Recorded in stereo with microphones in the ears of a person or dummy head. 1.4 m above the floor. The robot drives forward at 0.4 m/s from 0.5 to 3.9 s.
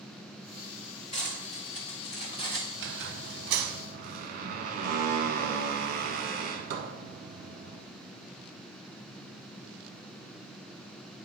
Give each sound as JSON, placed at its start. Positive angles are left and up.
{"t": 1.1, "sound": "cutlery clinking", "side_deg": 35, "distance_m": 1.6}
{"t": 2.8, "sound": "a squeak", "side_deg": -65, "distance_m": 0.6}